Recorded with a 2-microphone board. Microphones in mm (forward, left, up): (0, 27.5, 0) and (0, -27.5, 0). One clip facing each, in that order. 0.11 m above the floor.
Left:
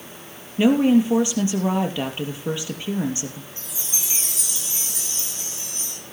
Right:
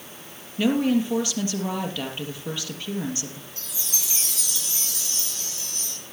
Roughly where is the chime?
Left.